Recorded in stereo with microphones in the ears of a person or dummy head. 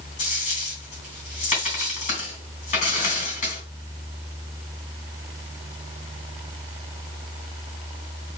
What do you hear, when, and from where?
0.2 s a dropped coin: 40° left (ahead or behind), 3 m